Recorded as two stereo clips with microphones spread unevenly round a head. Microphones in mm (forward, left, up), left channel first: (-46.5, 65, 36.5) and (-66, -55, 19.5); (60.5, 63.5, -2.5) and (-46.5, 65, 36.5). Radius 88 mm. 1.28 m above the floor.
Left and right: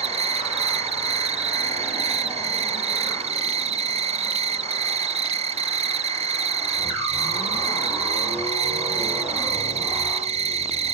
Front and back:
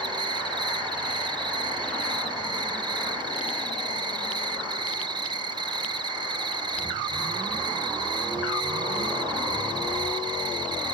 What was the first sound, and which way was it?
An insect, 110° right.